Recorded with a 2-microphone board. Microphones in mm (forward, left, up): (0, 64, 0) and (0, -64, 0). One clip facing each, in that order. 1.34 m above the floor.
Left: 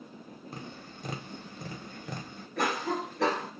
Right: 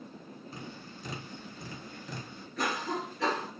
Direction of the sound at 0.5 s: 60° left (ahead or behind).